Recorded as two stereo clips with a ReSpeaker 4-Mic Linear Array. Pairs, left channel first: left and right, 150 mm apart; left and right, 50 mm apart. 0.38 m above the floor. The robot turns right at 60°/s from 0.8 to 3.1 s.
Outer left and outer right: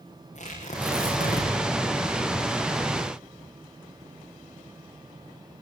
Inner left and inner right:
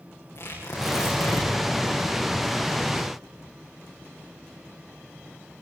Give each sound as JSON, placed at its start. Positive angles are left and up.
{"t": 0.3, "sound": "tearing paper", "azimuth_deg": 50, "distance_m": 9.5}